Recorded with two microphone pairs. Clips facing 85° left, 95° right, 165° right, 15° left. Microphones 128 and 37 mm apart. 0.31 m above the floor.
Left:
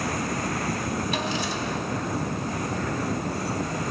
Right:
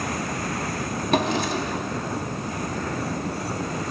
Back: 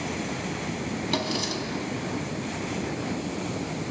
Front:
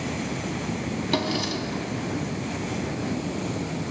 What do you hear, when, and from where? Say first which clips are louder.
1.1 s a drawer: right 5 dB, front 3 dB; 70° right, 0.8 m